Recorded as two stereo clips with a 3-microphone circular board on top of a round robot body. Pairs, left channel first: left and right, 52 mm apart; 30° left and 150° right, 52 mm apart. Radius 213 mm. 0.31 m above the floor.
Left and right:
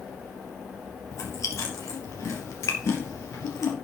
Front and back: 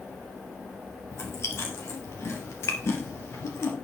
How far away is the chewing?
About 2 m.